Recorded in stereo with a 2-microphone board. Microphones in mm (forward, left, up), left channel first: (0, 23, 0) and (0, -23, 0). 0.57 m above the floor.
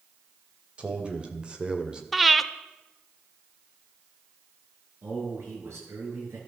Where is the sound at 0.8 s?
25° right (ahead or behind), 2.5 m; by 2.0 s 20° right (ahead or behind), 1.7 m.